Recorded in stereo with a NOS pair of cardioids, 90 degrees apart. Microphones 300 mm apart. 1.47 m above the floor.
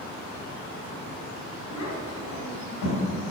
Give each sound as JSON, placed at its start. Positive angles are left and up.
{"t": 1.7, "sound": "a child speaking", "azimuth_deg": 60, "distance_m": 3.0}